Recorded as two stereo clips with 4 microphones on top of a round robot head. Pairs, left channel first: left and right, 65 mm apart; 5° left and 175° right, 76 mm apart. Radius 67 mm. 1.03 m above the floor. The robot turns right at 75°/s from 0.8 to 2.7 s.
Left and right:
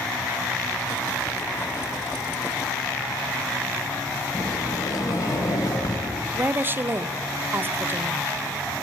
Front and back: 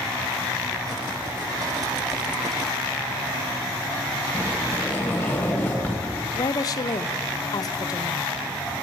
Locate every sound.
4.3 s a sliding door: 75° left, 2.5 m
6.3 s a woman speaking: 35° right, 0.5 m